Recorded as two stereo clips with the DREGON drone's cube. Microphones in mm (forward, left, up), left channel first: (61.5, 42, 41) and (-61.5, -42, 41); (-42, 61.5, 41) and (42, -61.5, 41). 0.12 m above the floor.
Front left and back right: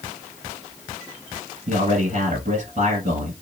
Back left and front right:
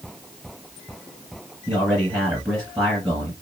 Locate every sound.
1.7 s a man speaking: 130° right, 1.6 m